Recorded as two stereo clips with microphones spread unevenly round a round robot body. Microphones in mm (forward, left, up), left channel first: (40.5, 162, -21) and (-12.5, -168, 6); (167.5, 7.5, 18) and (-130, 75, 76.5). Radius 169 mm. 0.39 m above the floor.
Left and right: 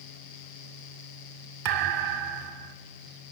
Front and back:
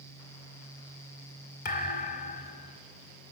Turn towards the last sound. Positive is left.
turn(degrees=-70)